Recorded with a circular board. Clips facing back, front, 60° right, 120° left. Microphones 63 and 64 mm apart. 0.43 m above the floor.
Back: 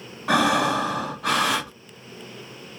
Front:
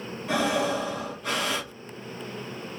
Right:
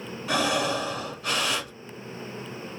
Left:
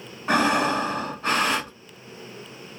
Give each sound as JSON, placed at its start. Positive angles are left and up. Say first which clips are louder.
{"t": 0.3, "sound": "breathing", "louder": "back 5 dB, left 5 dB", "azimuth_deg": 175, "distance_m": 1.0}